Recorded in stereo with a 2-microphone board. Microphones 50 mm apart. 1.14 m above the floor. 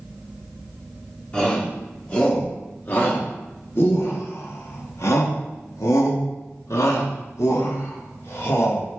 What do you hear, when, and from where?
1.3 s a shout: 25° left (ahead or behind), 2.5 m; by 8.9 s 60° left (ahead or behind), 3 m